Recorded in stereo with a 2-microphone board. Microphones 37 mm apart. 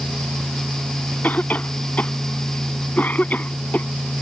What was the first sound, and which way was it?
A cough, 45° left (ahead or behind).